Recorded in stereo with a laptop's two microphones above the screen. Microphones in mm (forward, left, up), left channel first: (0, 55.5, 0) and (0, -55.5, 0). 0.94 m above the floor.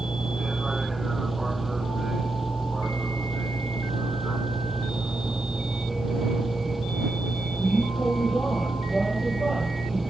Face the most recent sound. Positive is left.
turn(degrees=0)  # may be behind; listen again after turning